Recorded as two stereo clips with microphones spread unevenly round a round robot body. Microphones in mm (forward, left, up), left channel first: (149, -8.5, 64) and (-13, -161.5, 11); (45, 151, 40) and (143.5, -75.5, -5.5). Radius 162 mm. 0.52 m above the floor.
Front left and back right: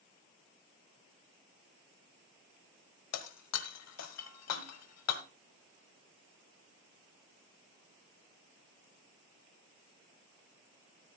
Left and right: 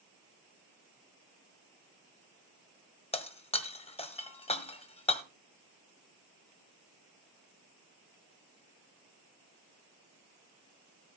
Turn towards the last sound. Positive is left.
turn(degrees=45)